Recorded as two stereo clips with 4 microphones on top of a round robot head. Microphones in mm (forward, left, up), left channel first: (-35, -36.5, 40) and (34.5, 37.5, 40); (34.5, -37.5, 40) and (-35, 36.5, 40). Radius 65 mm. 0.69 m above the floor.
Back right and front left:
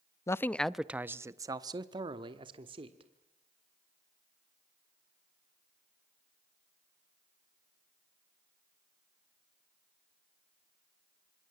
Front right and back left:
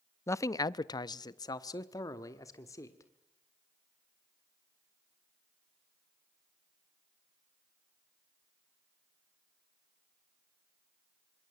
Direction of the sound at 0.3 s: 95° right.